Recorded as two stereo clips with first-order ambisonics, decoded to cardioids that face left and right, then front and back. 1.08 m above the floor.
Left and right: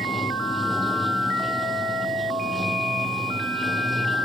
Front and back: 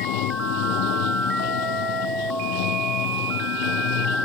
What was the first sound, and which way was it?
Running water, 5° left.